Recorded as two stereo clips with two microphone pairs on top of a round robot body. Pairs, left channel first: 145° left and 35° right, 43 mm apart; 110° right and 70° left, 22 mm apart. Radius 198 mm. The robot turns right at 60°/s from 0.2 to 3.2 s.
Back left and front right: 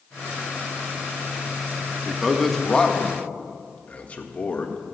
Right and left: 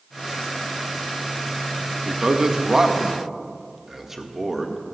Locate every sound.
2.0 s a man speaking: 45° left, 1.7 m; by 4.8 s 115° left, 1.7 m